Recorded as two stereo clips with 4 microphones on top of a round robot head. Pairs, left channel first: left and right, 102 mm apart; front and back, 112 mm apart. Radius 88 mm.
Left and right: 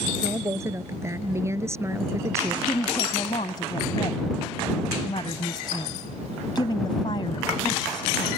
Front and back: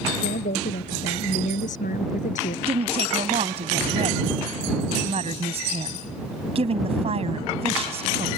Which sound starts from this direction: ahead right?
A woman speaking, at 0.2 s.